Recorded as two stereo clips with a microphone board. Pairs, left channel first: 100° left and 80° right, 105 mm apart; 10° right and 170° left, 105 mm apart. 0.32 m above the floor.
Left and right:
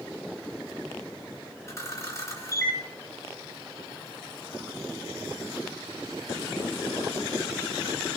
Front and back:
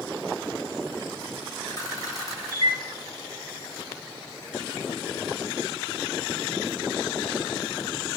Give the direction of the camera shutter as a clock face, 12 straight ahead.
11 o'clock.